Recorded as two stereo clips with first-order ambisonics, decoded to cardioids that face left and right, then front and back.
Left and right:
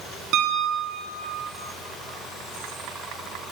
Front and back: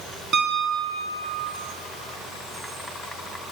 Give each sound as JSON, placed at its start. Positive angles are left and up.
{"t": 0.3, "sound": "a piano", "azimuth_deg": -120, "distance_m": 1.6}